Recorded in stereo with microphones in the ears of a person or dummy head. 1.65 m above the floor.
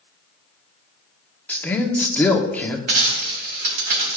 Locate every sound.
1.5 s a man speaking: 10° left (ahead or behind), 1.0 m
2.9 s a dropped coin: 50° right (ahead or behind), 3 m